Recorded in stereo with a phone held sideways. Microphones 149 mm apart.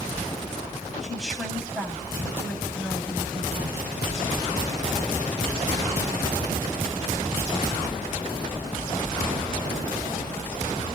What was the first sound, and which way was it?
A woman speaking, centre (ahead or behind).